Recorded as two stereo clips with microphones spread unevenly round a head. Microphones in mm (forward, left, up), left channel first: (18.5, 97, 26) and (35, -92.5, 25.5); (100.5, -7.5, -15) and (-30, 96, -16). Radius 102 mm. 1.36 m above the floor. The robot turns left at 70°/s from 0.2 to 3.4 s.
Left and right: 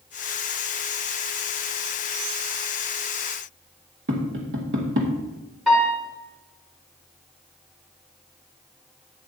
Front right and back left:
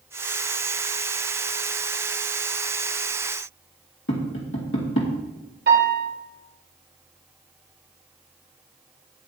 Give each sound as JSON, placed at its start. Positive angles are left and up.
{"t": 4.1, "sound": "tapping", "azimuth_deg": -70, "distance_m": 2.5}
{"t": 5.7, "sound": "a piano", "azimuth_deg": -175, "distance_m": 4.0}